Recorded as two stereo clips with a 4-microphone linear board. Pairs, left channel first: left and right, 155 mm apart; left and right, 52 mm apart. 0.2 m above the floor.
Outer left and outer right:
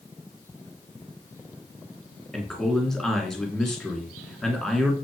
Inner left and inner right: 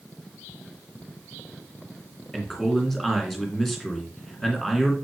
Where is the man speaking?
5° left (ahead or behind), 2.5 m.